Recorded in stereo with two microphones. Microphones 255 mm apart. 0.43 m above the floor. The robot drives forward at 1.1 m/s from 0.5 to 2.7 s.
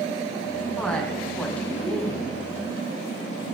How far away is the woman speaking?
About 4.5 m.